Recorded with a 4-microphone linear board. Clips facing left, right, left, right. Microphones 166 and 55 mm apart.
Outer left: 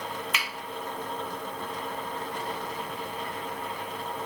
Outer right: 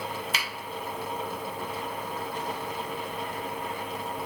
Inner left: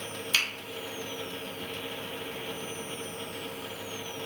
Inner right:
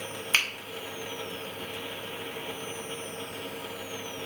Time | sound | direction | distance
0.3 | a finger snap | 35° right (ahead or behind) | 1.1 m